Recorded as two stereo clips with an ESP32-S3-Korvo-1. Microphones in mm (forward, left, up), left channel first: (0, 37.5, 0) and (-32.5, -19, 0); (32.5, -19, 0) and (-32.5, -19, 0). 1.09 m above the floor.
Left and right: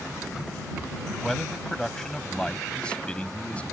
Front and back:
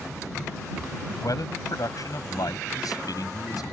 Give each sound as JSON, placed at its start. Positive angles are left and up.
{"t": 1.2, "sound": "a man speaking", "azimuth_deg": -30}